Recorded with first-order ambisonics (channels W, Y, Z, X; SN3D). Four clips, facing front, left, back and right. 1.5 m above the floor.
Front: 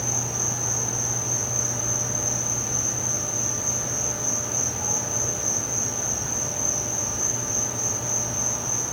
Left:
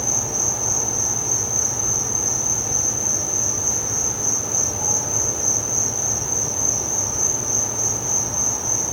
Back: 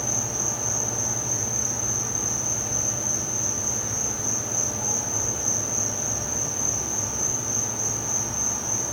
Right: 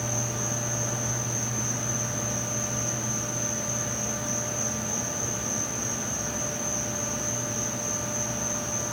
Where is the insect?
90° left, 3 m.